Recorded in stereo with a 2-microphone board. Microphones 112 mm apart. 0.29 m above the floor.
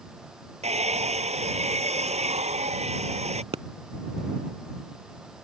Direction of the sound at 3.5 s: 60° right (ahead or behind).